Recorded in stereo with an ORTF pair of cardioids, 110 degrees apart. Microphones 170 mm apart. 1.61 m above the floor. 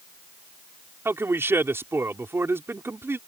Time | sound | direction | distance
1.1 | a man speaking | 15° right | ?